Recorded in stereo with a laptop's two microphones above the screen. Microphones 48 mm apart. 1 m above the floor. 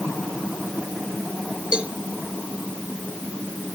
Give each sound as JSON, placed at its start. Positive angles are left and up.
{"t": 1.7, "sound": "a cowbell", "side_deg": -20}